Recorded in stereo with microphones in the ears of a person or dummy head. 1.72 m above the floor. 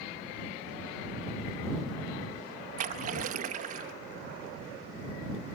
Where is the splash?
55° right (ahead or behind).